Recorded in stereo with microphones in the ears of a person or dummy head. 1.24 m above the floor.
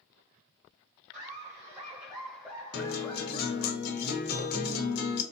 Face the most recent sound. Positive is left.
turn(degrees=55)  # may be behind; listen again after turning